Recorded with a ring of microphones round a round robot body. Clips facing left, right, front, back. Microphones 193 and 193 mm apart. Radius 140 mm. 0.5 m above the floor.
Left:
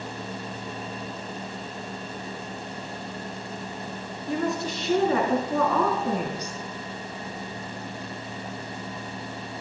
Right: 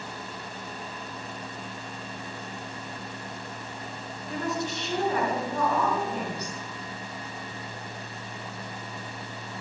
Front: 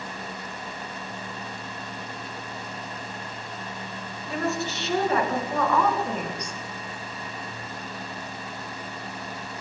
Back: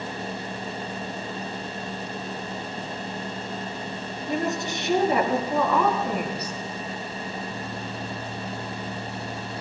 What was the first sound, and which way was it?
A woman speaking, 110° left.